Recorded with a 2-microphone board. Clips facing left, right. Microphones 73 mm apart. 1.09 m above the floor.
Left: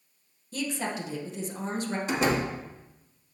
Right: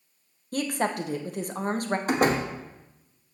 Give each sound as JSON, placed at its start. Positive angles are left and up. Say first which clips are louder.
{"t": 0.5, "sound": "a woman speaking", "louder": "right 5 dB", "side_deg": -50, "distance_m": 0.7}
{"t": 2.1, "sound": "a door slam", "louder": "right 3 dB", "side_deg": -45, "distance_m": 1.2}